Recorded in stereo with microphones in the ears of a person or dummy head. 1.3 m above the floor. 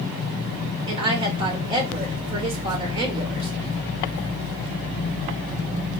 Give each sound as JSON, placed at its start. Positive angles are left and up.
{"t": 0.9, "sound": "a woman speaking", "side_deg": -25, "distance_m": 1.4}